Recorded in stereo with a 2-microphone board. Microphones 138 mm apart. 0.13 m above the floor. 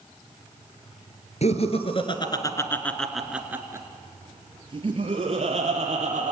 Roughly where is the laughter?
Left.